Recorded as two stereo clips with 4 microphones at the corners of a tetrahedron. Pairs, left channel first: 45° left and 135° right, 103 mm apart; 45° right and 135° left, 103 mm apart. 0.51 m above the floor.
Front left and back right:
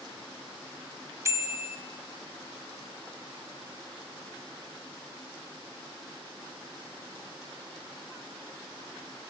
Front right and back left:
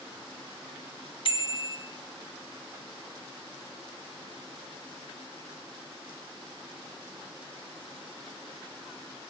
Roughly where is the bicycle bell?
Right.